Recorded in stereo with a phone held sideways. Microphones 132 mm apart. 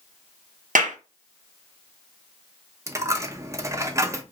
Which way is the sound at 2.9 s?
20° right (ahead or behind).